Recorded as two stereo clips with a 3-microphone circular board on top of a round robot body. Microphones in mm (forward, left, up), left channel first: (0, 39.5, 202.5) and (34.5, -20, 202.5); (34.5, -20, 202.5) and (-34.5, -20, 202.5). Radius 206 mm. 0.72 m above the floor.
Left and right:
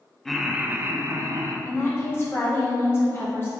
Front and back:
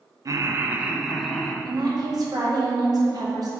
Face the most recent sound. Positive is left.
turn(degrees=170)